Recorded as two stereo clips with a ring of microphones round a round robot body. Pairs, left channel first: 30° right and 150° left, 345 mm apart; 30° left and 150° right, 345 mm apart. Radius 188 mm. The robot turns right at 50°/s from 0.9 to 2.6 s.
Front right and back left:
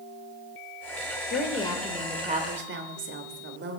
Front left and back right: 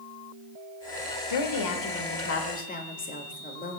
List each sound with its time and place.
1.3 s a woman speaking: 30° left, 1.6 m; by 3.8 s 95° left, 1.6 m